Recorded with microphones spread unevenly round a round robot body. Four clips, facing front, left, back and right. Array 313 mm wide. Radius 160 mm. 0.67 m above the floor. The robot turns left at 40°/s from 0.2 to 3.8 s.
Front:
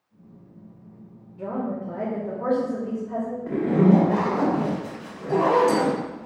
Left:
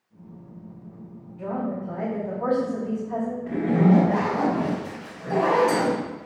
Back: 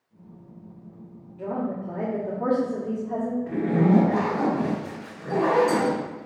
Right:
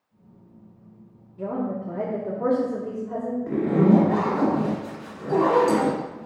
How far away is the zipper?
About 1.3 m.